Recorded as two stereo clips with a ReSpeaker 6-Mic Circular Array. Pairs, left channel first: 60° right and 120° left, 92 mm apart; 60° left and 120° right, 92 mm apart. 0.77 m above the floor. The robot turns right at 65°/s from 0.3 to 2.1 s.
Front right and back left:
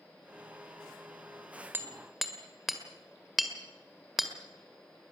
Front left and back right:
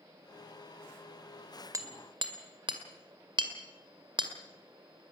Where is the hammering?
175° right, 1.8 m; by 4.3 s 150° right, 1.8 m.